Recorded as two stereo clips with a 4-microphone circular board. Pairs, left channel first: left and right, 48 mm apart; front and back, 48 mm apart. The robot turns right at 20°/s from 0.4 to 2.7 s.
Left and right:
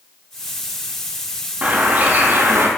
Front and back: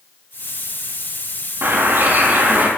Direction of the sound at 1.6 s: 150° right.